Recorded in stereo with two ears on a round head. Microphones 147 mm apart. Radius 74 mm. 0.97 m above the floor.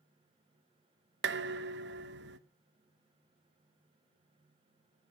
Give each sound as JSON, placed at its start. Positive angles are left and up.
{"t": 1.2, "sound": "dishes clattering", "side_deg": -70, "distance_m": 0.9}